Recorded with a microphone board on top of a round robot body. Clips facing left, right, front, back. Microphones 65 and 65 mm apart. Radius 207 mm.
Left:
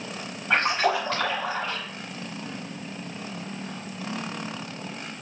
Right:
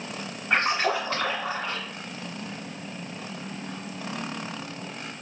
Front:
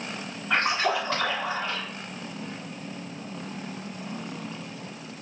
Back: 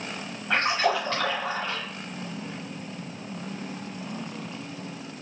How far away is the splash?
About 0.8 m.